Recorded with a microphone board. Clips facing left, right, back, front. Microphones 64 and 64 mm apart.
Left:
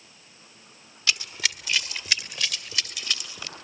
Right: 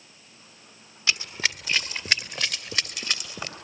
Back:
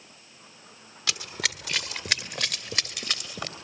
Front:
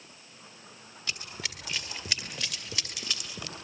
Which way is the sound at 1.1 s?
160° right.